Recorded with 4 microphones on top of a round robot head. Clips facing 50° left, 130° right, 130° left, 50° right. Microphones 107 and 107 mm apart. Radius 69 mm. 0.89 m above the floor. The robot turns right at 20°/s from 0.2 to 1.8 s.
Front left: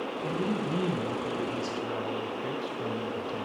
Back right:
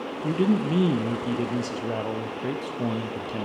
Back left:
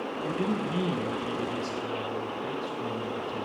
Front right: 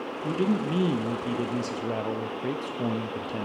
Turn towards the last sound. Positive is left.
turn(degrees=-90)